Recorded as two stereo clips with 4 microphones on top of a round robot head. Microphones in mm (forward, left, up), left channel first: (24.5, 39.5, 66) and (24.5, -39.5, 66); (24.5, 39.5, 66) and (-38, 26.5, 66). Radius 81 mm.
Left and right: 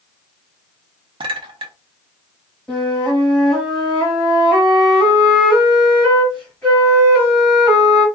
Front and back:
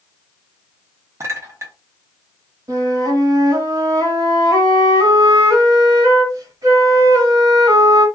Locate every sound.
1.2 s a clink: 115° right, 0.6 m
2.7 s a flute: 170° left, 1.3 m